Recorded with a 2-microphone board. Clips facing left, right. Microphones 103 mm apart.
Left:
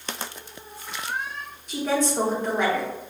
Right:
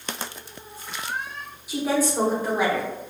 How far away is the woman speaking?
About 0.8 m.